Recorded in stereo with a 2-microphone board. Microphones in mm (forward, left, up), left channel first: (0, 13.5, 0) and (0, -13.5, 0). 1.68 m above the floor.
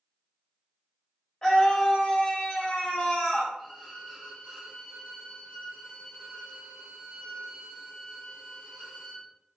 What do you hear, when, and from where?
1.4 s a scream: 30° left (ahead or behind), 1.2 m
3.6 s a violin: 10° right (ahead or behind), 1.7 m